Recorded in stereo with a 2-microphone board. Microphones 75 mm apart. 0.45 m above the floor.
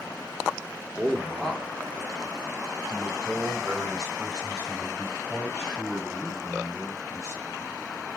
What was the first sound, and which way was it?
A man speaking, 5° left (ahead or behind).